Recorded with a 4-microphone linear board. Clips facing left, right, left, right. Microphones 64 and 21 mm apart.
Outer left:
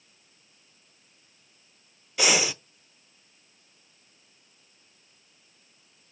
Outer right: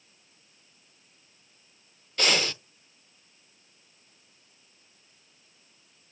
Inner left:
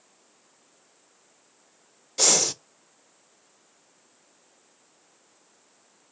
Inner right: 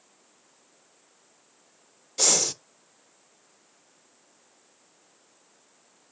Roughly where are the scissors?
No scissors in this recording.